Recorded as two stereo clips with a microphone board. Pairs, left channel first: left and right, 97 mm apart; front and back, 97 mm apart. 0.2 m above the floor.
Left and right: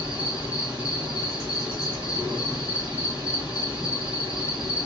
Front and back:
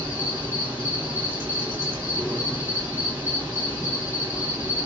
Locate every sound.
0.0 s an insect: 150° right, 2.0 m